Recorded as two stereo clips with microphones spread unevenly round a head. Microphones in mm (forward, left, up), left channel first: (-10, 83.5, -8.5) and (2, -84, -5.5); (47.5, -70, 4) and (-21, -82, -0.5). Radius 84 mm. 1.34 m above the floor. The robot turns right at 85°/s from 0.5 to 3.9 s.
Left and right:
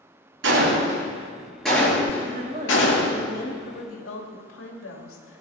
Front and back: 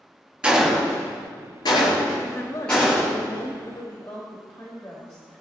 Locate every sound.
0.4 s a gunshot: 90° right, 5 m; by 3.2 s 135° left, 5 m
2.2 s a woman speaking: 60° right, 2.5 m; by 5.4 s 85° left, 2.5 m